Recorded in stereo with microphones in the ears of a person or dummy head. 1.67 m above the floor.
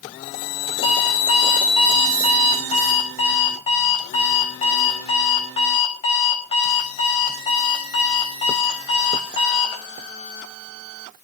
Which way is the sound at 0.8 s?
35° left (ahead or behind).